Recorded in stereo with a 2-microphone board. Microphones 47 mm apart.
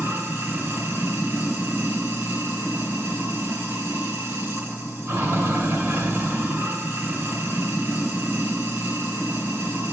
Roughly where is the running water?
Right.